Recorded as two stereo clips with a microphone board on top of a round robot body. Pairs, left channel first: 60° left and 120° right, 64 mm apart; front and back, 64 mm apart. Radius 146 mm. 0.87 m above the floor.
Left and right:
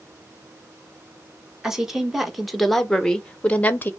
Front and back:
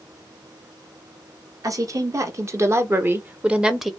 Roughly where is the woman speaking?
Behind left.